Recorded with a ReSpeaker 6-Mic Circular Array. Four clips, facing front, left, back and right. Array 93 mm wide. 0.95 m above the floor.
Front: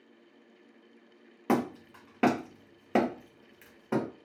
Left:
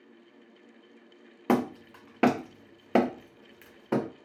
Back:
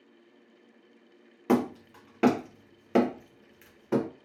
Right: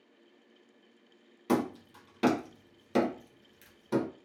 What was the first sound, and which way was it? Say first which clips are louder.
Hammering: left 3 dB, back 3 dB; 85° left.